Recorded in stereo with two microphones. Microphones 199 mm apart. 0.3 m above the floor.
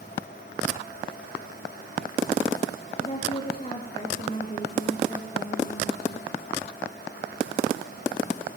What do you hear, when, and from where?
3.0 s a woman speaking: 30° left (ahead or behind), 5.5 m